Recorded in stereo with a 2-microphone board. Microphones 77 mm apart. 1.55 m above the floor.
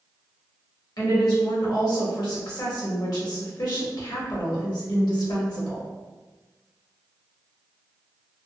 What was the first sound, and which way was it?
A woman speaking, 60° left (ahead or behind).